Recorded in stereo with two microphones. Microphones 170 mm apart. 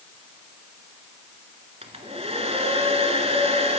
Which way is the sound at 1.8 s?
35° right (ahead or behind).